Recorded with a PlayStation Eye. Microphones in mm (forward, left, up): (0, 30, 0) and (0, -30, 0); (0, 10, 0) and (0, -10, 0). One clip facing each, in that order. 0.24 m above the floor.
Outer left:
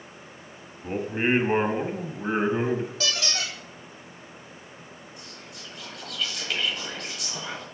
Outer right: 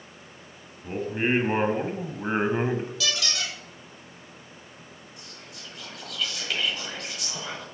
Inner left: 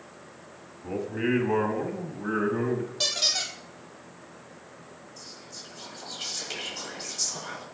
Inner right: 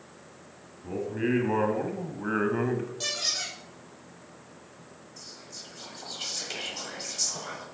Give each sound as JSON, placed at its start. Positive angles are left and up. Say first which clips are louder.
{"t": 0.8, "sound": "a man speaking", "louder": "outer left 1 dB, inner left 1 dB", "side_deg": 20, "distance_m": 1.4}
{"t": 3.0, "sound": "a squeak", "louder": "even, inner left 6 dB", "side_deg": 35, "distance_m": 2.0}
{"t": 5.2, "sound": "whispering", "louder": "outer left 2 dB, even", "side_deg": 0, "distance_m": 0.9}